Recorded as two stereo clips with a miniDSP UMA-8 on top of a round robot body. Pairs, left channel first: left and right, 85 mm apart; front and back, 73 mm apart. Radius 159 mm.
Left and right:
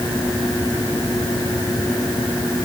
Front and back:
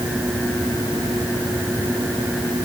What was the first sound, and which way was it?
Only background noise.